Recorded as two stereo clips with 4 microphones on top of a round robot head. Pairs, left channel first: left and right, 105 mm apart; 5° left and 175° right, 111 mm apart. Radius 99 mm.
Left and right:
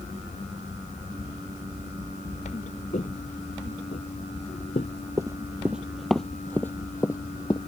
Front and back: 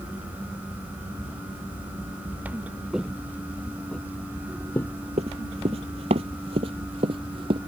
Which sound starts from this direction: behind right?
Running footsteps, at 5.2 s.